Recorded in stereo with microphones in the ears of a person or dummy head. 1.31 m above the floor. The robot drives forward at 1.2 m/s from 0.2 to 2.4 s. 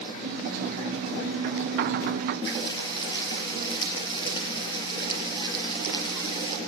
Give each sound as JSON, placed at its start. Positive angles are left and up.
{"t": 2.4, "sound": "frying", "side_deg": 25, "distance_m": 5.0}